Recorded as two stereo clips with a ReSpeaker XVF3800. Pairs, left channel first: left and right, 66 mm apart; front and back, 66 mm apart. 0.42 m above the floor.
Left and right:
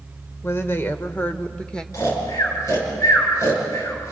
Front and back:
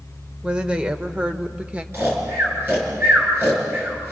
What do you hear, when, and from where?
0.4 s a woman speaking: 115° left, 1.5 m; by 1.8 s 150° left, 1.2 m
1.9 s snoring: 125° left, 7.5 m